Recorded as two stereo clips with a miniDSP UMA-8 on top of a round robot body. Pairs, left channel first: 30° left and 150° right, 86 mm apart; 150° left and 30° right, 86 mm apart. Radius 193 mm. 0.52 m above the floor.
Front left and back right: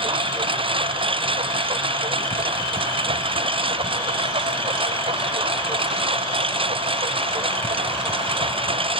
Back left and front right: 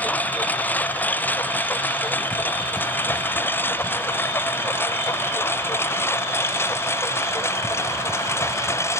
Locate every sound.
0.0 s a lawn mower: 140° right; by 9.0 s 150° right